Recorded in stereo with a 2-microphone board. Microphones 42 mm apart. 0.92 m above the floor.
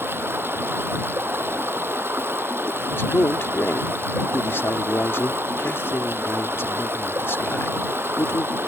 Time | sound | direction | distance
0.0 | running water | 65° right (ahead or behind) | ?
2.9 | a man speaking | 70° left (ahead or behind) | ?